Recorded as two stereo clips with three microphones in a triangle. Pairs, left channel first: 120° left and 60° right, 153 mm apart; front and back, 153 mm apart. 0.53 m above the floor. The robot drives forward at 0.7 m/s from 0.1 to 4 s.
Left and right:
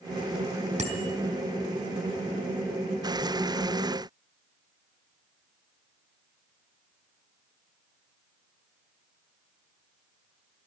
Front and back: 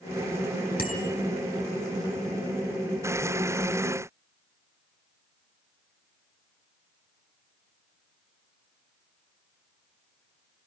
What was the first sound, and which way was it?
A bicycle bell, 20° right.